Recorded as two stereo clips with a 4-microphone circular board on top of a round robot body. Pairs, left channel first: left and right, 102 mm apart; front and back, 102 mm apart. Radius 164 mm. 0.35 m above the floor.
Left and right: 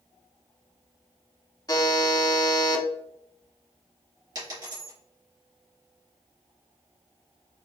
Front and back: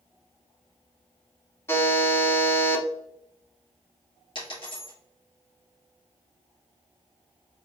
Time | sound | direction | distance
1.7 | a buzzer | 55° left | 1.1 m
4.3 | a dropped coin | 40° right | 2 m